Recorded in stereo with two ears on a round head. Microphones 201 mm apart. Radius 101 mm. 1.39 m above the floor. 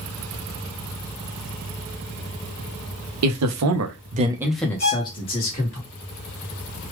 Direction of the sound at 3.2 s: 80° right.